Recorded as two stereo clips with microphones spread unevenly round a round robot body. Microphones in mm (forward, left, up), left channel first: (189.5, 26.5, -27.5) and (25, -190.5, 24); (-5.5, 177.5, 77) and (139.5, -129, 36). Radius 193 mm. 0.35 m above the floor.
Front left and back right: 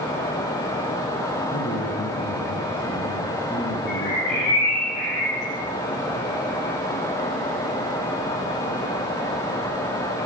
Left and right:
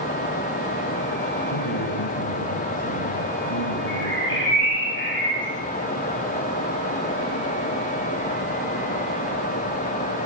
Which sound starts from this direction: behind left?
A man speaking, at 1.5 s.